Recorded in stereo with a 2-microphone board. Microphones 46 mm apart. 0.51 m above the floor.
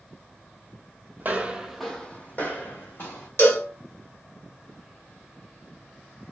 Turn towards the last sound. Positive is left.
turn(degrees=65)  # may be behind; listen again after turning